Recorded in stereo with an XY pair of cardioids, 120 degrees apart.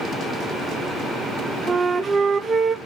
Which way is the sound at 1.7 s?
25° right.